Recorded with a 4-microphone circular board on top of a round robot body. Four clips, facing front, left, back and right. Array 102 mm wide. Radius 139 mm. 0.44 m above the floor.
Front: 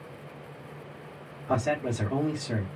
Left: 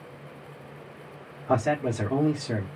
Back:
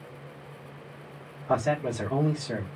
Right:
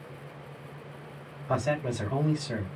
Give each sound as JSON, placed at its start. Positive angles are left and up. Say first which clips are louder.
{"t": 1.5, "sound": "a man speaking", "louder": "left 4 dB, back 1 dB", "azimuth_deg": 95, "distance_m": 1.5}